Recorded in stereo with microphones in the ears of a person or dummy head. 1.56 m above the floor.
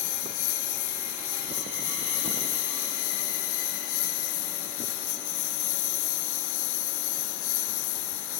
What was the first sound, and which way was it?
A lawn mower, 60° left (ahead or behind).